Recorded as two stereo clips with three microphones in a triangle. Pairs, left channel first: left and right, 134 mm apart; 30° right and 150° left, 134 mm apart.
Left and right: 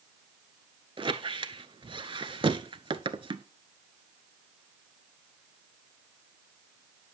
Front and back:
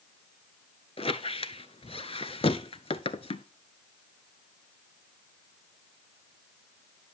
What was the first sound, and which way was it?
A squeak, 55° right.